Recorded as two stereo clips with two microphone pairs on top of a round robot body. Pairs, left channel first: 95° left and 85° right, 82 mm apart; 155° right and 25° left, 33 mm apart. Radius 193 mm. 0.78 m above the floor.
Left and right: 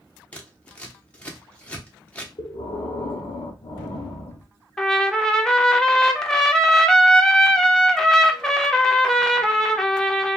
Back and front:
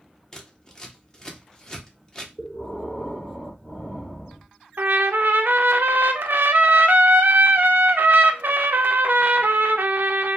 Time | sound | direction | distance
0.3 | scissors | 140° left | 1.1 m
2.4 | breathing | 125° left | 0.7 m
4.8 | a trumpet | 20° left | 0.5 m